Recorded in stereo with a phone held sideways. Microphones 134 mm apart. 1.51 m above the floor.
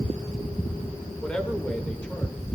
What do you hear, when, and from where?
1.2 s a man speaking: 5° left (ahead or behind), 2.5 m